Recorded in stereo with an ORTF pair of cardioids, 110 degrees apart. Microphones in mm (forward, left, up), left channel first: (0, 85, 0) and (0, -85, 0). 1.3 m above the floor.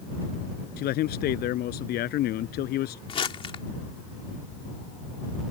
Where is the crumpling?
35° left.